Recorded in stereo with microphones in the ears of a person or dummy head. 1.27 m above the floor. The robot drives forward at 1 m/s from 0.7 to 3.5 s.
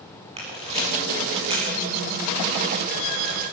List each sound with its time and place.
0.4 s a camera shutter: 35° right (ahead or behind), 9.5 m; by 1.7 s 30° right (ahead or behind), 10 m